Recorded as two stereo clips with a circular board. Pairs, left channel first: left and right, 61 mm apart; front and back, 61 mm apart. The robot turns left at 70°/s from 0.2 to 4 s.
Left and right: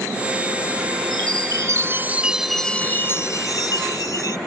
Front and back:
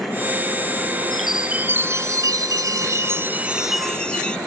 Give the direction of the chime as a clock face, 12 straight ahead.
3 o'clock.